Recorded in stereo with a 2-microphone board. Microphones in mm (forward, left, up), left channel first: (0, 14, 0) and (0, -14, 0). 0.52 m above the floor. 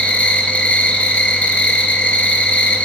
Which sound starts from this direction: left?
An insect, at 0.0 s.